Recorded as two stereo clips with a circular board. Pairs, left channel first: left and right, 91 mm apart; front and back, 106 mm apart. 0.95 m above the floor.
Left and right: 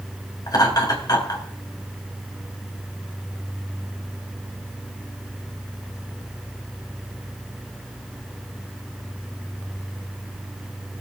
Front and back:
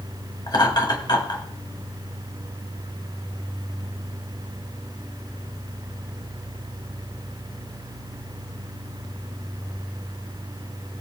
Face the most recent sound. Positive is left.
turn(degrees=45)